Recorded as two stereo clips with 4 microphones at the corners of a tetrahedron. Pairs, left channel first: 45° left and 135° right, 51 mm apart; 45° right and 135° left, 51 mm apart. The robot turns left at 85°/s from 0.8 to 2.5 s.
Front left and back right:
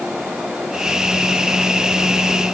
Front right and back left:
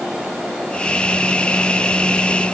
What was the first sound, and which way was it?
Only background noise.